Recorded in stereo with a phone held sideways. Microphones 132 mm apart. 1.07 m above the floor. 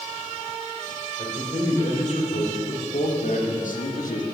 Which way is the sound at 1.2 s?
55° left (ahead or behind).